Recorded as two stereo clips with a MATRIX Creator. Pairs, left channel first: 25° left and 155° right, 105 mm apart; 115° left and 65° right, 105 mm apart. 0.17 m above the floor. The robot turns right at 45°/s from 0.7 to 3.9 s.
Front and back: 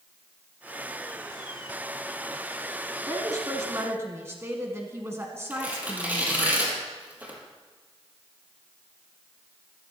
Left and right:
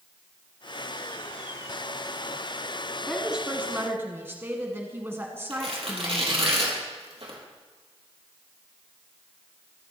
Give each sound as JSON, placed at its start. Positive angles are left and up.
{"t": 3.1, "sound": "a woman speaking", "azimuth_deg": -155, "distance_m": 1.4}
{"t": 5.5, "sound": "tearing paper", "azimuth_deg": -85, "distance_m": 4.0}